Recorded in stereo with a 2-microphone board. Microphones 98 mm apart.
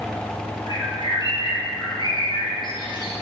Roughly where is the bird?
Left.